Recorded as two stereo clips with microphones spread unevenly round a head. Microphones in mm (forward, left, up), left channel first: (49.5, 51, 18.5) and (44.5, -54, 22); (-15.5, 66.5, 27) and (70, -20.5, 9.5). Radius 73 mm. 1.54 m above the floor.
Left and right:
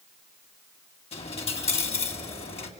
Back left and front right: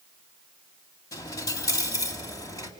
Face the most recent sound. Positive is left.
turn(degrees=85)